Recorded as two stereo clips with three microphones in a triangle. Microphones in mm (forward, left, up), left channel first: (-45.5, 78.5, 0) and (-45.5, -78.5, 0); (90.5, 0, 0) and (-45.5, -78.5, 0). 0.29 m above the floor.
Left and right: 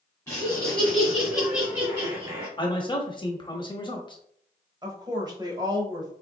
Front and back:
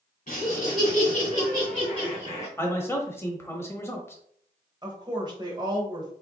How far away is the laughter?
About 2 m.